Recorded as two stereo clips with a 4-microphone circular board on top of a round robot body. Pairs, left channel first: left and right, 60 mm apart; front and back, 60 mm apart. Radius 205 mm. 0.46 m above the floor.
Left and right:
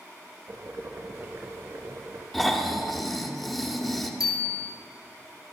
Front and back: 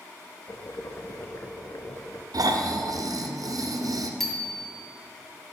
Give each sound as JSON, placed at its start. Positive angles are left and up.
{"t": 0.5, "sound": "boiling", "azimuth_deg": -45, "distance_m": 0.5}
{"t": 2.3, "sound": "snoring", "azimuth_deg": 175, "distance_m": 1.6}
{"t": 4.2, "sound": "a bicycle bell", "azimuth_deg": 85, "distance_m": 2.5}